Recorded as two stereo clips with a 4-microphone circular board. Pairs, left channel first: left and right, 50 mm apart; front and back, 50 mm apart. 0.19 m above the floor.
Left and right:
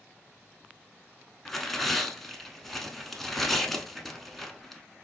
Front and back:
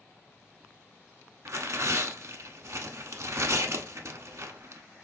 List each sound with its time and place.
1.4 s tearing paper: 175° left, 0.6 m